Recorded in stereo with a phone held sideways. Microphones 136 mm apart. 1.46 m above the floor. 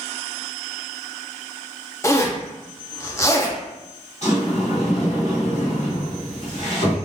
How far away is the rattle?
I don't hear a rattle.